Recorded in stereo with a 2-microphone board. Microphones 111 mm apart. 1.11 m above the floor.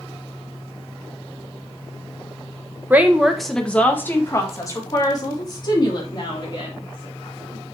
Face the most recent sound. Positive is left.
turn(degrees=50)  # may be behind; listen again after turning